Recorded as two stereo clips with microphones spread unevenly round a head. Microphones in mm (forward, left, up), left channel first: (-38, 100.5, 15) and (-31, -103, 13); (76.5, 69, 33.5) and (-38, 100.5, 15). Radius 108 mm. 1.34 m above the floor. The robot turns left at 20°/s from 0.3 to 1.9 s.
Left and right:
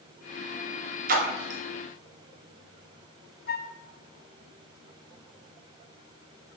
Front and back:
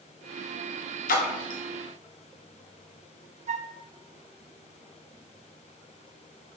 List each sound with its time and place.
1.1 s a splash: 35° right, 0.9 m; by 1.6 s 45° right, 0.9 m
3.5 s a flute: 140° left, 0.6 m